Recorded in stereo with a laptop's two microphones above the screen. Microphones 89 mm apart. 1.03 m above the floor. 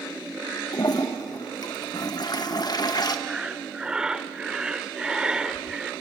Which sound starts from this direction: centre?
Breathing, at 3.3 s.